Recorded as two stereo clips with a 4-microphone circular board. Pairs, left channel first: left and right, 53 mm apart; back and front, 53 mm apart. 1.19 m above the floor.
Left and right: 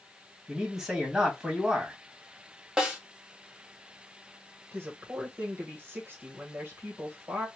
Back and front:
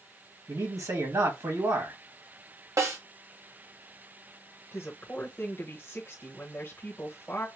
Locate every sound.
0.5 s a man speaking: straight ahead, 1.8 m
2.8 s a snare drum: 10° right, 1.4 m
4.7 s a woman speaking: 135° right, 1.1 m